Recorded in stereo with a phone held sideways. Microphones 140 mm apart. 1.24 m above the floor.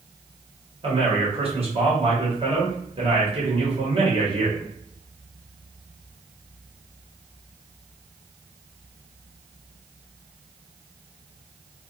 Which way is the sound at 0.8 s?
45° right (ahead or behind).